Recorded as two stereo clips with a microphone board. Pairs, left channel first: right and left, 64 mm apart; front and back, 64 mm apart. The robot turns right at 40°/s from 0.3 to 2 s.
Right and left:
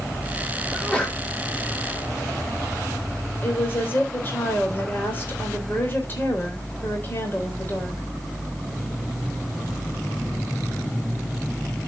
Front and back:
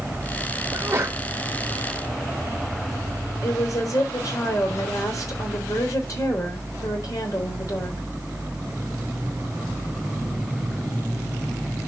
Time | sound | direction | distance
0.7 | a sneeze | 170° right | 1.4 m
3.4 | a woman speaking | 30° right | 3.5 m